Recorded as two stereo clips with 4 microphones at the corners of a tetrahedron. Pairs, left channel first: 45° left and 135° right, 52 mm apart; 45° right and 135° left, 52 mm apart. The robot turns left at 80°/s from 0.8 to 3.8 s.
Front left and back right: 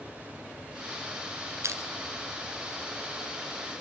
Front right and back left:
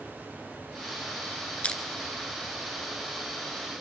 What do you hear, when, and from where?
1.6 s crushing: 110° right, 1.4 m; by 1.8 s 125° right, 1.4 m